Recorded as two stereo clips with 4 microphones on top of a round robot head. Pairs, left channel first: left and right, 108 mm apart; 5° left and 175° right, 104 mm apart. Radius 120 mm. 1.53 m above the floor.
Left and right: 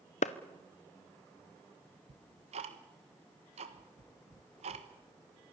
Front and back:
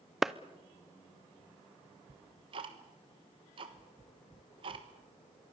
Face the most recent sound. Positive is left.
turn(degrees=-125)